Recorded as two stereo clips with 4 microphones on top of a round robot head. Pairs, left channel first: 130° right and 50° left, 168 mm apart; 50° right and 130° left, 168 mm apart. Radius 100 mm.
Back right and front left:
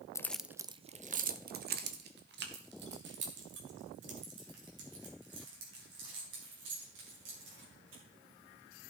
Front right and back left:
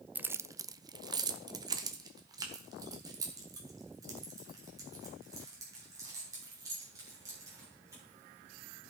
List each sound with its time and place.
0.1 s keys jangling: 170° right, 0.6 m; by 8.0 s 55° left, 5.5 m